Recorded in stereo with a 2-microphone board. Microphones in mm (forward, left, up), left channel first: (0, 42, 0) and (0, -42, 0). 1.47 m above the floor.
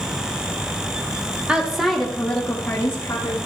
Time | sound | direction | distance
1.5 | a woman speaking | 10° right (ahead or behind) | 1.6 m